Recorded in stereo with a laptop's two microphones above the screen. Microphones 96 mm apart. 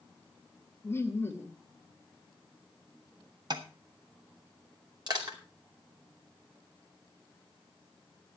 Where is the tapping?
45° right (ahead or behind), 1.5 m.